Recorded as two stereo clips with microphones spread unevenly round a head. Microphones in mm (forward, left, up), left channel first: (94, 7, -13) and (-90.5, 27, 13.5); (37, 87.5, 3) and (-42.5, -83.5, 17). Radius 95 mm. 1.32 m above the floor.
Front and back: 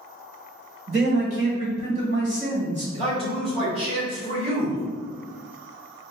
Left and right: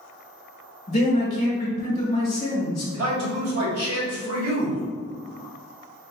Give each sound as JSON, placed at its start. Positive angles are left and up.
{"t": 0.9, "sound": "a man speaking", "azimuth_deg": 120, "distance_m": 1.5}
{"t": 2.9, "sound": "a man speaking", "azimuth_deg": -125, "distance_m": 1.9}